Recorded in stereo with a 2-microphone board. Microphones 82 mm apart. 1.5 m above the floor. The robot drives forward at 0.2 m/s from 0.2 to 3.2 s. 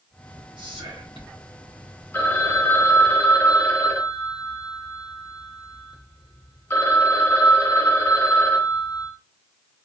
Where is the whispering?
75° right (ahead or behind), 0.9 m; by 1.4 s 65° right (ahead or behind), 1.0 m.